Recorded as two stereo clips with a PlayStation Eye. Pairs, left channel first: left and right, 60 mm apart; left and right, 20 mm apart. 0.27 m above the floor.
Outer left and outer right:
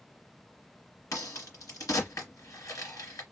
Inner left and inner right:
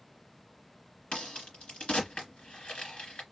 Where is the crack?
70° left (ahead or behind), 2 m.